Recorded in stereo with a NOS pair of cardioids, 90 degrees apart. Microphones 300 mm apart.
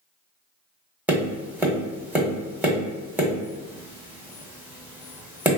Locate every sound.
1.1 s tapping: 5° right, 1.0 m